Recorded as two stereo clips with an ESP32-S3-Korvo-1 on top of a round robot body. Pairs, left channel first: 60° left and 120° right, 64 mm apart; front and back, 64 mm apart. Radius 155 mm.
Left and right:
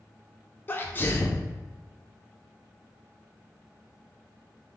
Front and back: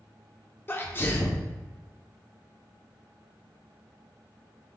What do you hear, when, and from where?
0.7 s a sneeze: 25° left, 0.7 m